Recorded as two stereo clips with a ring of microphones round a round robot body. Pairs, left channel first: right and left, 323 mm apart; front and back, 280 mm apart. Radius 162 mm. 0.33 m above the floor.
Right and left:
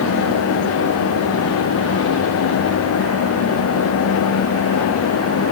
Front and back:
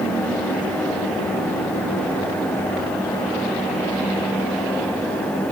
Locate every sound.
Only background noise.